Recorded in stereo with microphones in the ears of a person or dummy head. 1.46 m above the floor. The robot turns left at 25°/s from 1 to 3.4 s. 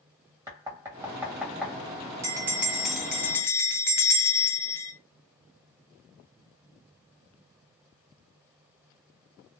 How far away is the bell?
About 0.5 m.